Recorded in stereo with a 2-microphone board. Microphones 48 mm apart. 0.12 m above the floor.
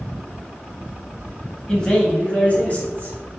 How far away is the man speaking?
About 1.2 m.